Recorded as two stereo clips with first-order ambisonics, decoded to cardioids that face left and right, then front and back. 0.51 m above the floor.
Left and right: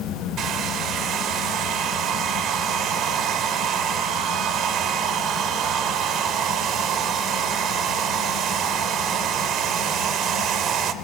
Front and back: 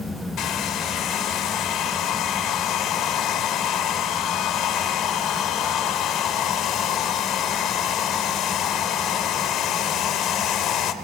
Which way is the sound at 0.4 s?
40° right.